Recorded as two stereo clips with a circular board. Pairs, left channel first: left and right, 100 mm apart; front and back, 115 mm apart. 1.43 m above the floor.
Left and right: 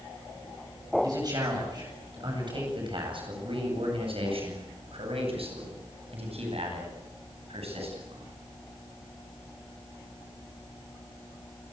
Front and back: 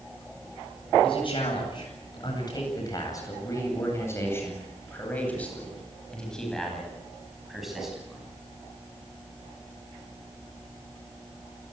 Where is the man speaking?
40° right, 9 m; by 8.3 s 95° right, 11.5 m.